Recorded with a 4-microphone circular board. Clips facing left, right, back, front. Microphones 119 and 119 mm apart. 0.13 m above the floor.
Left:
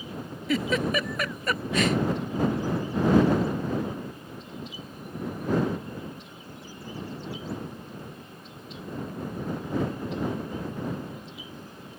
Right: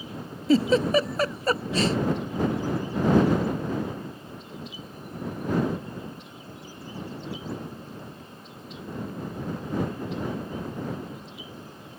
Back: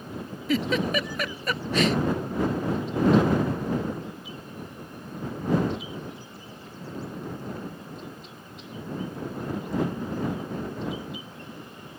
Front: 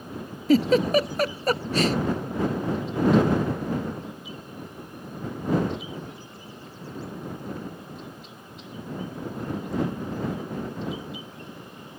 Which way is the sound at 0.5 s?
40° right.